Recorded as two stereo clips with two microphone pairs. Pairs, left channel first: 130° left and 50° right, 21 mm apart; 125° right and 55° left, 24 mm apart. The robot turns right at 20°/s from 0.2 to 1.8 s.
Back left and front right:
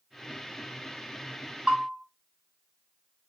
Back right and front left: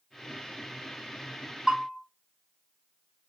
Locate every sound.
1.7 s a bell: 40° right, 1.6 m